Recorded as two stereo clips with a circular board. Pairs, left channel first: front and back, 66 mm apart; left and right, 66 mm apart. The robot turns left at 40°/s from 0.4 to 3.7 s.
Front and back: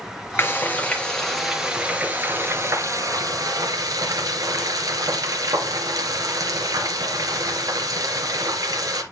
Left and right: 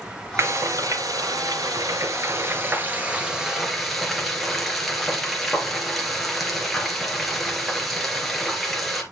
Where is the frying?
50° right, 2.5 m; by 9.0 s straight behind, 2.5 m.